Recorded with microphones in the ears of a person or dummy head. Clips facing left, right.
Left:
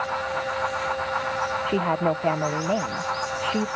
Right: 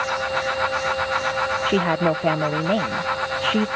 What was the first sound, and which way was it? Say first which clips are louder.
A woman speaking: right 3 dB; 15° right (ahead or behind).